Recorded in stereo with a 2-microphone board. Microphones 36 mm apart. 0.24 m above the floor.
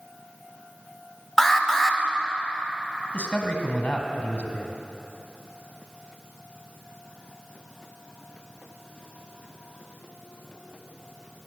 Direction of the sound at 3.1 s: 35° left (ahead or behind).